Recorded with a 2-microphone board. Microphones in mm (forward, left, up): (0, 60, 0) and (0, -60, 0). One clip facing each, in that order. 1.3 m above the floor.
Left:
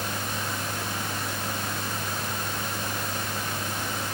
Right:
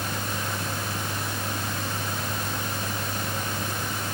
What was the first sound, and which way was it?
Only background noise.